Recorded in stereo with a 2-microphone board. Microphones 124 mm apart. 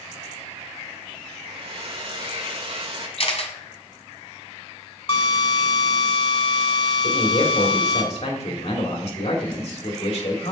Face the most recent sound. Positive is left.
turn(degrees=60)  # may be behind; listen again after turning